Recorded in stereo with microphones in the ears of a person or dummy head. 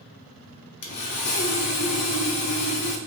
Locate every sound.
0.8 s sawing: 60° left (ahead or behind), 0.7 m